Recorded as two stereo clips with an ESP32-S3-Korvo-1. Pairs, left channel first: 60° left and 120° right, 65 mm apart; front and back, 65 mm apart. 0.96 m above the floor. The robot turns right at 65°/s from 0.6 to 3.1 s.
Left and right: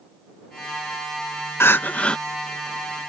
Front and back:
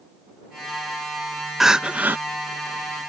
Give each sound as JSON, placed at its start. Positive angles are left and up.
{"t": 1.6, "sound": "crying", "azimuth_deg": 95}